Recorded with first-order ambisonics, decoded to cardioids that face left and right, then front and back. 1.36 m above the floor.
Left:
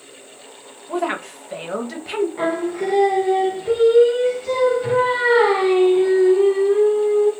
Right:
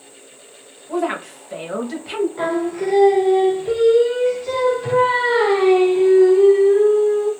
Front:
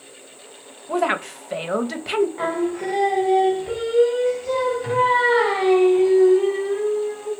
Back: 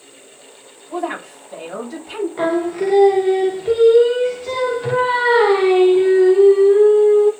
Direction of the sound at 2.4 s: 175° left.